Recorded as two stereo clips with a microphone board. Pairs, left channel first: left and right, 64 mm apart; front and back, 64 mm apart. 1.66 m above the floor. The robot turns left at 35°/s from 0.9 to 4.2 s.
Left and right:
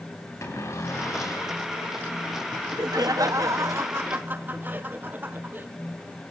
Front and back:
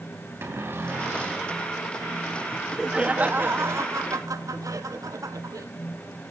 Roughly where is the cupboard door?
Behind left.